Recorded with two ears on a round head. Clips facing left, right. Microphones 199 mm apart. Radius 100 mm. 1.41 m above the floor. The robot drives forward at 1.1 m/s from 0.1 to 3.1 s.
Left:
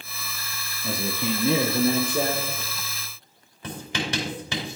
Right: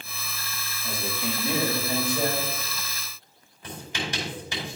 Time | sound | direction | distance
0.8 | a man speaking | 65° left (ahead or behind) | 1.0 m
3.6 | writing | 55° left (ahead or behind) | 4 m